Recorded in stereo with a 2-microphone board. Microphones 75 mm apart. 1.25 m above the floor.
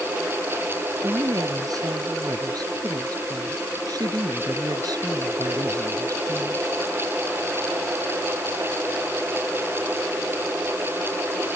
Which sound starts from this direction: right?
A woman speaking, at 1.0 s.